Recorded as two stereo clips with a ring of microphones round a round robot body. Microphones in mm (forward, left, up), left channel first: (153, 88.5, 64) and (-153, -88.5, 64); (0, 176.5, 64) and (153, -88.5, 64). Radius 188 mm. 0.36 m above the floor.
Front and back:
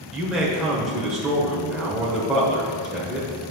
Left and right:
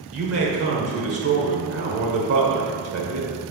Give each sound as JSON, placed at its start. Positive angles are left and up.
{"t": 0.1, "sound": "a man speaking", "azimuth_deg": -60, "distance_m": 1.5}